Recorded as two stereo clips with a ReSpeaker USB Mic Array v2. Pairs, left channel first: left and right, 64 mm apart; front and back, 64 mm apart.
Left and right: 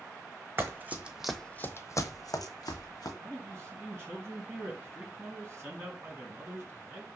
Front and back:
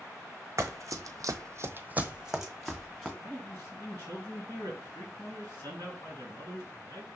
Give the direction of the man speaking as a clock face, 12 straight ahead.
1 o'clock.